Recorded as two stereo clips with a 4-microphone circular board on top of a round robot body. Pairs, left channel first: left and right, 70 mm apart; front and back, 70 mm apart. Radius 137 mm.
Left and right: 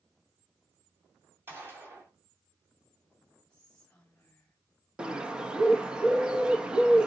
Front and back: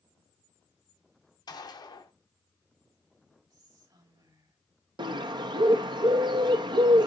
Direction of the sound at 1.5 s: 30° right.